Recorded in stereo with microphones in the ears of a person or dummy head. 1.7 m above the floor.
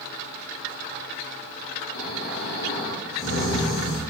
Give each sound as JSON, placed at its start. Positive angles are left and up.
{"t": 1.9, "sound": "snoring", "side_deg": 75, "distance_m": 3.0}